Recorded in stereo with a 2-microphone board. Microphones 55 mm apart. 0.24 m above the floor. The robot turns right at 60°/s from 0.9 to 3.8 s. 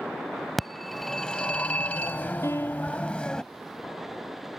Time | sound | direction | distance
0.6 | a phone ringing | straight ahead | ?
2.4 | a piano | 120° left | ?